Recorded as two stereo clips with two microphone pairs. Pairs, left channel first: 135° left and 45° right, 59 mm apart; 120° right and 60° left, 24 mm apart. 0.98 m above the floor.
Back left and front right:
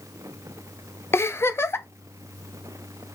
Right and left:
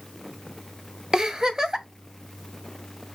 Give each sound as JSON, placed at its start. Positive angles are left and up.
{"t": 1.1, "sound": "a giggle", "azimuth_deg": 120, "distance_m": 0.8}